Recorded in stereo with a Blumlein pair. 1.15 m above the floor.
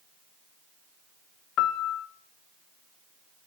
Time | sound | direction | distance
1.6 | a piano | 35° left | 0.6 m